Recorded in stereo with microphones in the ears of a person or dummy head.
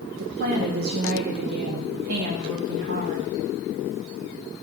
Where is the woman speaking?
60° right (ahead or behind), 1.2 m.